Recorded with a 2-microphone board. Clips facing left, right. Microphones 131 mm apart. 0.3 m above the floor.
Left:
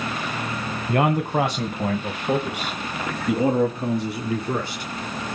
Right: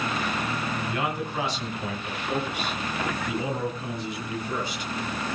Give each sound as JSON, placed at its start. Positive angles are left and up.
{"t": 0.9, "sound": "a man speaking", "side_deg": 50, "distance_m": 1.8}